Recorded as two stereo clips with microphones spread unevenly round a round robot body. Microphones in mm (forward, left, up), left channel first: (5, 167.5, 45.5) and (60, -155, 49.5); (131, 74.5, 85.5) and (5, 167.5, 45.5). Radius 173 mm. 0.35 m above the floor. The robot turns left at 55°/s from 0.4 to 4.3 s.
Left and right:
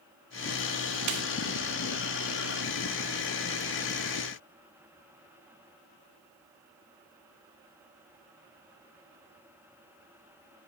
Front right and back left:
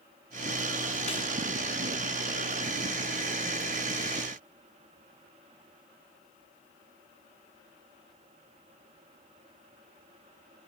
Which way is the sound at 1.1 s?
95° right.